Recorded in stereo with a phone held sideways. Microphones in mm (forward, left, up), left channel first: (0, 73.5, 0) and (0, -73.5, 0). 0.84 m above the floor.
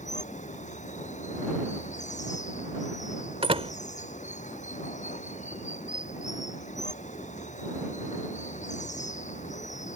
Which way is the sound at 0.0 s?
55° left (ahead or behind).